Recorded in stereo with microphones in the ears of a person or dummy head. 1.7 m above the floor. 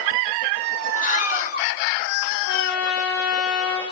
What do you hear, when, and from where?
1.0 s a scream: 50° left (ahead or behind), 4 m
2.4 s a trumpet: 70° left (ahead or behind), 8.5 m